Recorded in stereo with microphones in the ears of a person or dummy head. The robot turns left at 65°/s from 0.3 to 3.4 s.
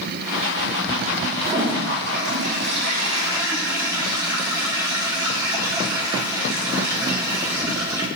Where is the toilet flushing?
40° right, 1.8 m; by 8.1 s 165° right, 1.8 m.